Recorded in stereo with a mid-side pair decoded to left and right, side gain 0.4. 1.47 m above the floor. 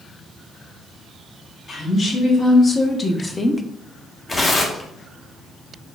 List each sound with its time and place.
1.7 s a woman speaking: 50° left, 2 m; by 3.6 s 5° left, 0.6 m
4.3 s tearing paper: 35° left, 1.0 m